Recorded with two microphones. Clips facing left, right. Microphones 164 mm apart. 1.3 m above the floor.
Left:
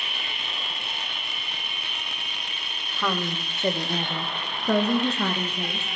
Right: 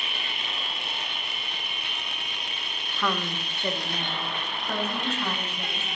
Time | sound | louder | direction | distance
2.9 | a woman speaking | left 1 dB | 5° left (ahead or behind) | 1.0 m